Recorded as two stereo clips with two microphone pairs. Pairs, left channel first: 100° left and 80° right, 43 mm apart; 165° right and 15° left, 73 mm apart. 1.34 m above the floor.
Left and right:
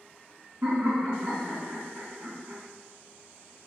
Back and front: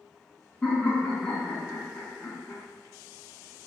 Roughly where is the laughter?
Right.